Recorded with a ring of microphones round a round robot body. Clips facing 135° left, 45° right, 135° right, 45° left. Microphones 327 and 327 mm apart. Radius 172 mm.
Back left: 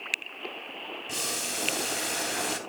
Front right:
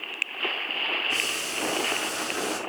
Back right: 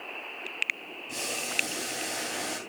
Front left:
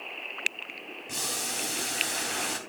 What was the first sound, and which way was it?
Boiling, 115° left.